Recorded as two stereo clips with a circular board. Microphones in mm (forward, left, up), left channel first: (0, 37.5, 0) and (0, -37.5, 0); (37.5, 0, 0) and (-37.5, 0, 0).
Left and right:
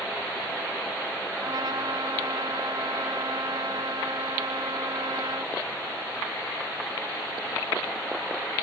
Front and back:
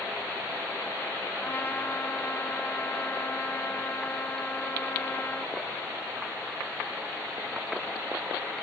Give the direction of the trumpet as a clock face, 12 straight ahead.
2 o'clock.